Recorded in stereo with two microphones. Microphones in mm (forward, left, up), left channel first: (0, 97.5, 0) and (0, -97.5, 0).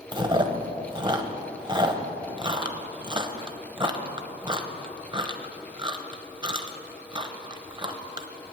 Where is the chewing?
25° right (ahead or behind), 0.8 m.